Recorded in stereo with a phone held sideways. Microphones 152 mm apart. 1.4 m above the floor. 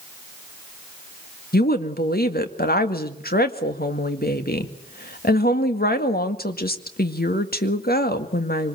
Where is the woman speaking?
85° left, 1.9 m.